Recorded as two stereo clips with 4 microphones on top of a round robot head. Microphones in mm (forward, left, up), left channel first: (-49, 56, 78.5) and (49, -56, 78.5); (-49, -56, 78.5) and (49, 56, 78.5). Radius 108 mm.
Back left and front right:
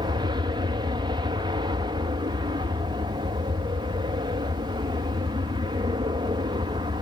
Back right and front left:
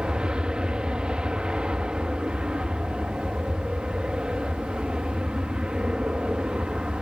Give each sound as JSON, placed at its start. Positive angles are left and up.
{"t": 0.0, "sound": "an aircraft", "azimuth_deg": -30}